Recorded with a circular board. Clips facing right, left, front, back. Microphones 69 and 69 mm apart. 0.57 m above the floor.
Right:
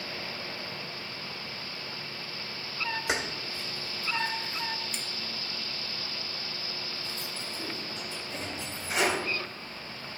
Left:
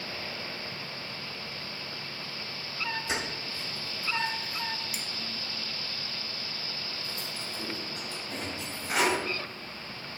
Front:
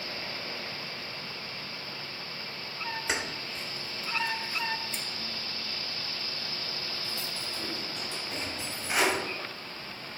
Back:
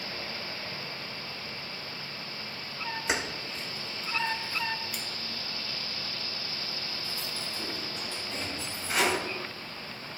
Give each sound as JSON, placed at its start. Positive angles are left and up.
{"t": 3.1, "sound": "keys jangling", "azimuth_deg": -95, "distance_m": 1.4}